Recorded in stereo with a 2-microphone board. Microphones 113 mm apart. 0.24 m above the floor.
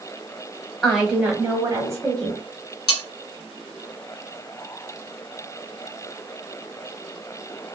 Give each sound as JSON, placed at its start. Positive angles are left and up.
{"t": 0.8, "sound": "a woman speaking", "side_deg": 0, "distance_m": 1.2}
{"t": 2.9, "sound": "cutlery clinking", "side_deg": 40, "distance_m": 1.3}